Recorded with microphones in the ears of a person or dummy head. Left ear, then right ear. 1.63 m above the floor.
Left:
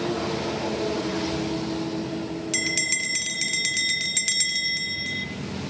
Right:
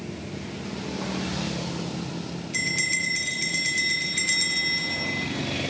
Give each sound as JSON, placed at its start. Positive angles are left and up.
{"t": 2.5, "sound": "a bell", "side_deg": 35, "distance_m": 2.5}